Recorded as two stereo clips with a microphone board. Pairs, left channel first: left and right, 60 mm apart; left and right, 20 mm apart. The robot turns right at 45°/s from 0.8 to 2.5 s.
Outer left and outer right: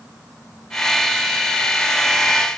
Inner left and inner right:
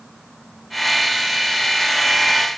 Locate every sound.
Only background noise.